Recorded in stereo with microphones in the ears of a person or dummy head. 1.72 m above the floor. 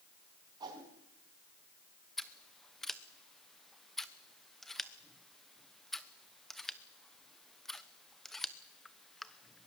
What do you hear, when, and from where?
0.6 s a whoosh: 25° right (ahead or behind), 5 m
2.2 s scissors: 10° left (ahead or behind), 0.9 m